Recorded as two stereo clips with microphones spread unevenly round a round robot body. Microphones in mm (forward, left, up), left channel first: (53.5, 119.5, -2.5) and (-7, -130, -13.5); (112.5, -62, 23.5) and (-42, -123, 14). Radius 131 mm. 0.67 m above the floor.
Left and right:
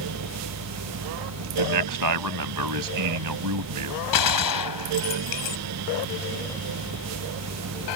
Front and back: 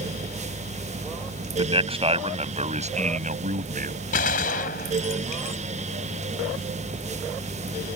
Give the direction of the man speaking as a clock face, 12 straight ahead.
3 o'clock.